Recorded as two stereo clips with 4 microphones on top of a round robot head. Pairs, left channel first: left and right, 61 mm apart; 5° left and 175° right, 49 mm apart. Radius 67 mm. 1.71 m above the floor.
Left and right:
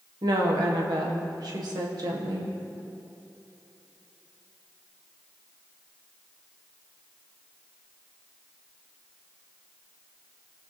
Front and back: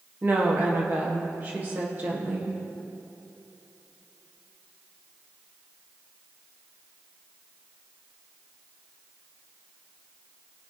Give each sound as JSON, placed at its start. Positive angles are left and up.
{"t": 0.2, "sound": "a woman speaking", "azimuth_deg": -115, "distance_m": 1.5}